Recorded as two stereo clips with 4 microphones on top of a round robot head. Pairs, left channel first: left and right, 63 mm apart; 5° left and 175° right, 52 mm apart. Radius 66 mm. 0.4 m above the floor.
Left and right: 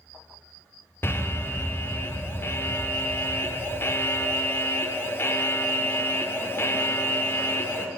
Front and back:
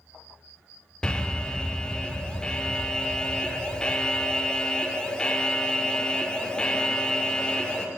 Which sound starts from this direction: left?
An alarm, at 1.0 s.